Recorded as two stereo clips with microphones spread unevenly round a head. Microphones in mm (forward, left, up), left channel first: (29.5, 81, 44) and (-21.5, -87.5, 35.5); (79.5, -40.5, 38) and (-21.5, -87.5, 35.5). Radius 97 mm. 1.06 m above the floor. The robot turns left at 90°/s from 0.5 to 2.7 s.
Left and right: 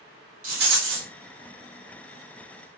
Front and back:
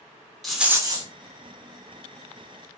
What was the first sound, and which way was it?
A rattle, 65° right.